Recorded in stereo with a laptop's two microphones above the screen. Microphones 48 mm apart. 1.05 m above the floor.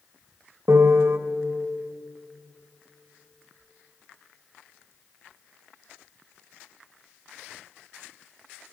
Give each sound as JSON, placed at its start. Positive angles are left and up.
{"t": 0.7, "sound": "a piano", "side_deg": -60, "distance_m": 1.5}